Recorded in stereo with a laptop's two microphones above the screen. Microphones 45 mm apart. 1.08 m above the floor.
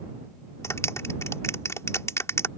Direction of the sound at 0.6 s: 85° left.